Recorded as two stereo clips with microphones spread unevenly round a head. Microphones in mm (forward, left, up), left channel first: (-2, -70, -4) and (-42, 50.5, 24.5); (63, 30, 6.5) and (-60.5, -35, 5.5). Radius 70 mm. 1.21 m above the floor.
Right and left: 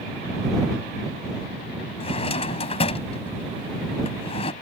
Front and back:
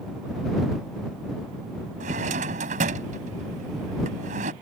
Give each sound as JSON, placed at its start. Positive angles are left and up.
{"t": 2.0, "sound": "a drawer", "azimuth_deg": -115}